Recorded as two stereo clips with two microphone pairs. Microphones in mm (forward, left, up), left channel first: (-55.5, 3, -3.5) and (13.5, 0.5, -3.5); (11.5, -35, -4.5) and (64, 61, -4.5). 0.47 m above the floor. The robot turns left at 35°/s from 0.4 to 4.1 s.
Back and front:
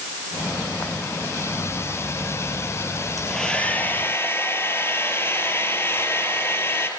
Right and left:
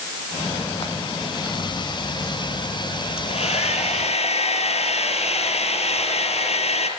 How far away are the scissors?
No scissors in this recording.